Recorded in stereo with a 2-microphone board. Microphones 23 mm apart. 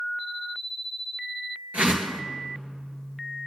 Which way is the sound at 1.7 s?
85° right.